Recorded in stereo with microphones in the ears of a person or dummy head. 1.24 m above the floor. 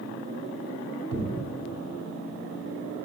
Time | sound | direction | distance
1.1 | a thud | 65° right (ahead or behind) | 1.9 m